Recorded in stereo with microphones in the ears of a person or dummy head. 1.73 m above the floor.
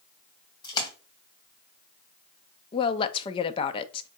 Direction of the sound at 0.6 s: 20° left (ahead or behind).